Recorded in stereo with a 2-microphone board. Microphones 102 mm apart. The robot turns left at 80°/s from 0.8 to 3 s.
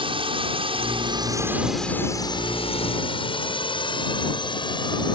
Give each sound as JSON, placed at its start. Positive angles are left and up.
{"t": 0.0, "sound": "a drone", "side_deg": -60}